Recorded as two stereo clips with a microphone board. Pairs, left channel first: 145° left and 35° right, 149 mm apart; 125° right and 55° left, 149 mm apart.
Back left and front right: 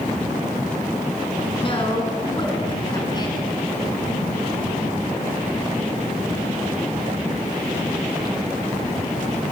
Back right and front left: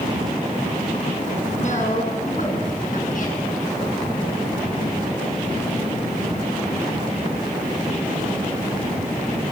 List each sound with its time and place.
1.6 s a woman speaking: 160° right, 6 m; by 3.4 s 150° right, 6.5 m